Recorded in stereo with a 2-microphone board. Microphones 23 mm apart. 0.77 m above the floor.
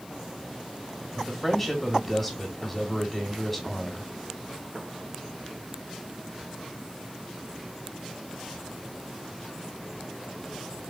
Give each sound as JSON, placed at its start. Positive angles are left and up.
{"t": 1.1, "sound": "a man speaking", "side_deg": 5, "distance_m": 1.6}